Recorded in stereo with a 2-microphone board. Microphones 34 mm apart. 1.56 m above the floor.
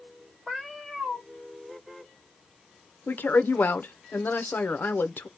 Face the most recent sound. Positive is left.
turn(degrees=80)